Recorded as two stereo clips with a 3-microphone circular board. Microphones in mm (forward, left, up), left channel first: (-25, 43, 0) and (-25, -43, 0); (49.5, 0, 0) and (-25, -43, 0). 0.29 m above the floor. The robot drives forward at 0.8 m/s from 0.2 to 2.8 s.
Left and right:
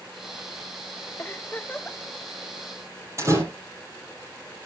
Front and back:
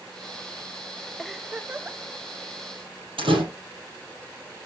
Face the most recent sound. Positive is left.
turn(degrees=-145)